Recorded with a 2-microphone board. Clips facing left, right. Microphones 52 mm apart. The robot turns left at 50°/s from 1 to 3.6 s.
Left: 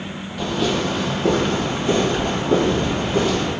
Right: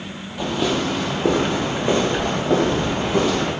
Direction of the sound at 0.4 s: 10° right (ahead or behind).